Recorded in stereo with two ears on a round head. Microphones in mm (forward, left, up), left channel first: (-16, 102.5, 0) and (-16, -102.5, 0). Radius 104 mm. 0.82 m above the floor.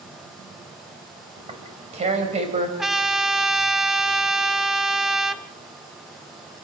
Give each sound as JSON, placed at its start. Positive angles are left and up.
{"t": 1.4, "sound": "tearing paper", "side_deg": -30, "distance_m": 4.5}
{"t": 2.8, "sound": "a trumpet", "side_deg": 0, "distance_m": 0.9}